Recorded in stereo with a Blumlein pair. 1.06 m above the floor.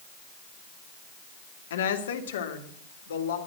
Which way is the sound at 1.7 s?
60° left.